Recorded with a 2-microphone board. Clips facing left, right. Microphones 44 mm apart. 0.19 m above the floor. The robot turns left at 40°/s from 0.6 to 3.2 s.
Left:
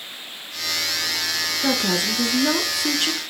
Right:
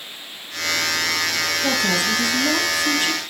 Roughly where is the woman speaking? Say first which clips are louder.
Right 1 dB; behind left.